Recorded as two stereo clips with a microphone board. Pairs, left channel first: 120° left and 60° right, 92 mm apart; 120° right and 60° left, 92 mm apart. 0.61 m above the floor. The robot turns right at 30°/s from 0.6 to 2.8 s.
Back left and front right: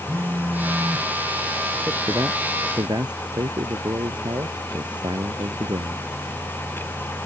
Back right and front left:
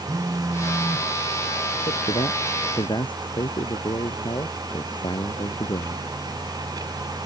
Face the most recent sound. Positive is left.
turn(degrees=-95)